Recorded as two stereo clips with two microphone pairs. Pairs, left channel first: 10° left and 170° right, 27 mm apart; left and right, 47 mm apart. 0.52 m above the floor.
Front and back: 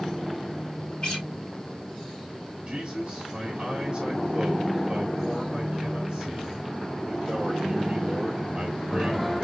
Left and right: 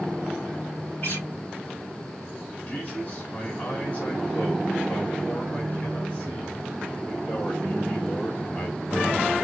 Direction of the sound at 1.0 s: 50° left.